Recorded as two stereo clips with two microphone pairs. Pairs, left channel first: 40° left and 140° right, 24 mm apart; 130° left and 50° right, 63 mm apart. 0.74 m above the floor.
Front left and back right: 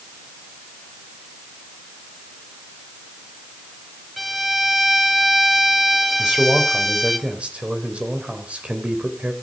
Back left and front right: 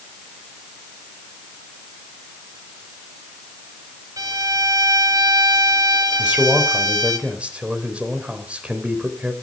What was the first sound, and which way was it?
A violin, 50° right.